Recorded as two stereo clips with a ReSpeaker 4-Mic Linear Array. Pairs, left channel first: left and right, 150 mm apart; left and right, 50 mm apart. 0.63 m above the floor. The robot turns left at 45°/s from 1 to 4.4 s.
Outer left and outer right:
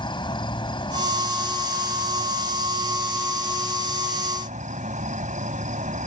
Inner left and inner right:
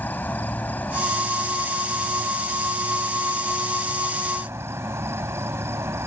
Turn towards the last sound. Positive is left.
turn(degrees=-120)